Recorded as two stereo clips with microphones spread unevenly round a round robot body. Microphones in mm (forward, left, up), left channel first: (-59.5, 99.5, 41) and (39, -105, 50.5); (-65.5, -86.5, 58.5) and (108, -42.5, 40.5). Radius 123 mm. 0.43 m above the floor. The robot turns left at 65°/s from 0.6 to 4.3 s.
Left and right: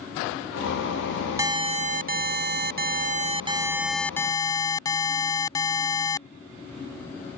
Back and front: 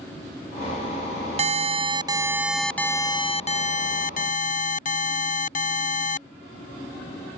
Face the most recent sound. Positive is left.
turn(degrees=180)